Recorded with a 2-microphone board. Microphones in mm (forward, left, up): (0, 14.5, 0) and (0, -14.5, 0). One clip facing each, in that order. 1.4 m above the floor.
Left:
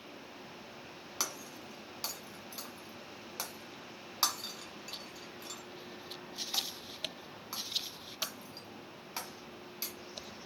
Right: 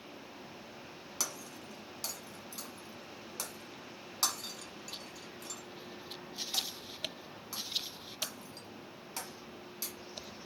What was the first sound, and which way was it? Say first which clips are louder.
Breaking glass: left 1 dB; 20° left (ahead or behind).